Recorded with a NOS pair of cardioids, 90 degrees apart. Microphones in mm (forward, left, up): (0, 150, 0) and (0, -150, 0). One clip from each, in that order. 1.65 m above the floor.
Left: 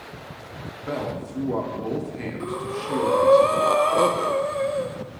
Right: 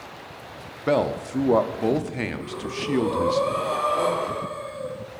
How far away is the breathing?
About 0.8 m.